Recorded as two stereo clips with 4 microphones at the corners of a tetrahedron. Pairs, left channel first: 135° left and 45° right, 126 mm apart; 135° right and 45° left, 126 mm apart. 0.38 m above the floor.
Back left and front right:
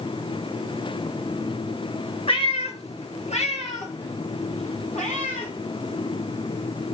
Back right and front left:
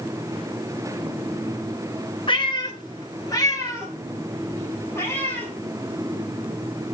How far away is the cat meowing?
About 2.5 m.